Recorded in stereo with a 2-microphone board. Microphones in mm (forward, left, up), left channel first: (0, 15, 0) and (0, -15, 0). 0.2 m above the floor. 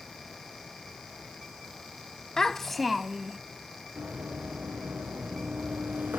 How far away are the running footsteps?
About 6 m.